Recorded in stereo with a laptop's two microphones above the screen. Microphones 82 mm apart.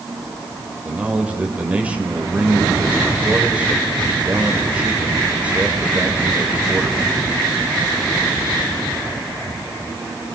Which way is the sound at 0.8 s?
15° right (ahead or behind).